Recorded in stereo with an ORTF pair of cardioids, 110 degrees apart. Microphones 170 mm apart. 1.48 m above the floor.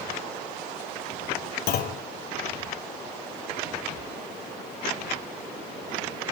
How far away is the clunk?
About 0.8 m.